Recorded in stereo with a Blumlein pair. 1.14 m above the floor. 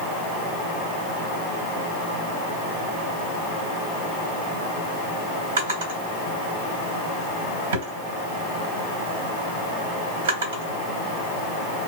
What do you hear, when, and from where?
5.6 s a drawer: 55° right, 2 m